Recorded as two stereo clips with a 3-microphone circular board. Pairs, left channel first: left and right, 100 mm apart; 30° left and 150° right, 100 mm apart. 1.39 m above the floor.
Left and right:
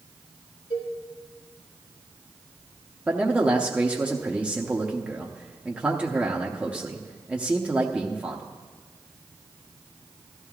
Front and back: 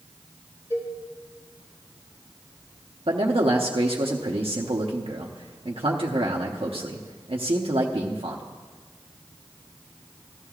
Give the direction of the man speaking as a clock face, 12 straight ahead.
6 o'clock.